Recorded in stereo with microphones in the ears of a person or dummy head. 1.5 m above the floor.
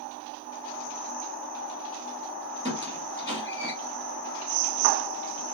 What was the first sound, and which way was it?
A squeak, 20° right (ahead or behind).